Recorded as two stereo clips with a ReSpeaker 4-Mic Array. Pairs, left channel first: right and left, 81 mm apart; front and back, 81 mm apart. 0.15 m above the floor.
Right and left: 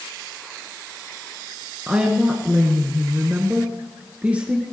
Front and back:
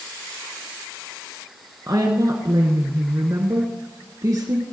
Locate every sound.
1.9 s a woman speaking: 160° left, 2.0 m